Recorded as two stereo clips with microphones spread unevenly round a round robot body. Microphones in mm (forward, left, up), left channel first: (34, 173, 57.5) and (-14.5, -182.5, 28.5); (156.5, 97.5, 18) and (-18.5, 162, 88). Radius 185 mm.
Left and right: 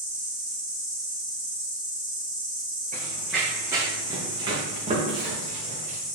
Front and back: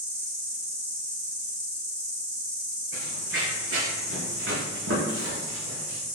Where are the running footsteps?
165° left, 1.4 m; by 6.0 s 170° right, 3 m.